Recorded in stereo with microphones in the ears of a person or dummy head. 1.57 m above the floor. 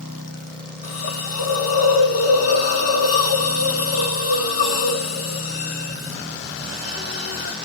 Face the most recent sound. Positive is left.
turn(degrees=50)  # may be behind; listen again after turning